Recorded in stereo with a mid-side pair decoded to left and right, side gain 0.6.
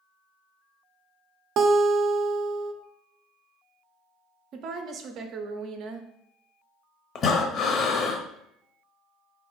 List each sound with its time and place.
1.6 s a guitar: 55° right, 0.6 m
4.5 s a woman speaking: 60° right, 0.5 m
7.2 s breathing: 50° left, 0.6 m